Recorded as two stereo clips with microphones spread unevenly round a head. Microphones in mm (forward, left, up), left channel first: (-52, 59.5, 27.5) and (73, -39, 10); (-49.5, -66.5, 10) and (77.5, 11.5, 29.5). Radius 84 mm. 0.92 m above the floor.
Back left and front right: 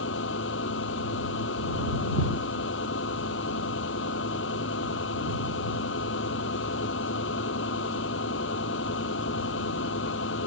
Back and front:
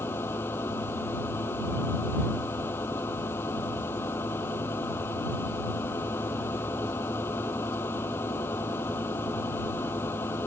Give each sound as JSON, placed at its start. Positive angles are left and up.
{"t": 0.0, "sound": "a machine running", "azimuth_deg": 135}